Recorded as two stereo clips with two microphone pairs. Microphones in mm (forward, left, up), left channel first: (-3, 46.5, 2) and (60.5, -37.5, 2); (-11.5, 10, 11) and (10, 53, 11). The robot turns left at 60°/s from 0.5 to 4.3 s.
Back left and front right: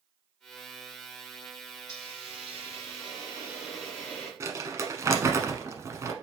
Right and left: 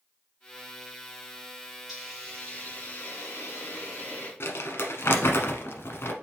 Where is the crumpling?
110° right, 0.8 m.